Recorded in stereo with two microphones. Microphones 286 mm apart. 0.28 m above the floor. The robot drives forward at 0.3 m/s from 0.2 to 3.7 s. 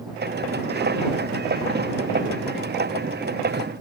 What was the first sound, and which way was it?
Only background noise.